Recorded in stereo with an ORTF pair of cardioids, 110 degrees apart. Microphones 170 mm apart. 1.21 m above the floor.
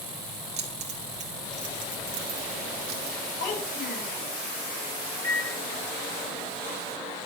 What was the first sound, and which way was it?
Keys jangling, 40° right.